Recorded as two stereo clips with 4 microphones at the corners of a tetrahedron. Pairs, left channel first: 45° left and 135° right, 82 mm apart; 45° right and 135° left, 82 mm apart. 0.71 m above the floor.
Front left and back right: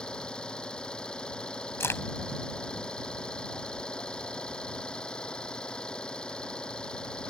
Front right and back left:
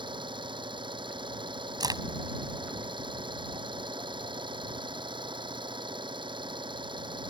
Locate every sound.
0.0 s an engine running: 125° left
1.8 s a crack: 105° left